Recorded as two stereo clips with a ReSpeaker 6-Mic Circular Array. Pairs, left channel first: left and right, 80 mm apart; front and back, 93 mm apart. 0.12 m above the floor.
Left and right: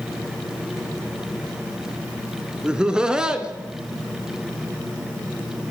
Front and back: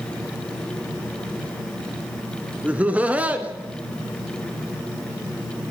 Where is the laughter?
145° right, 1.1 m.